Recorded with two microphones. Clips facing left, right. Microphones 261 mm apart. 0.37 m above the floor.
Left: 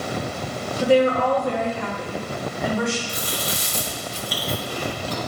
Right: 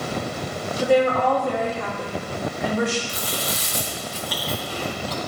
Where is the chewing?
50° left (ahead or behind), 1.5 m.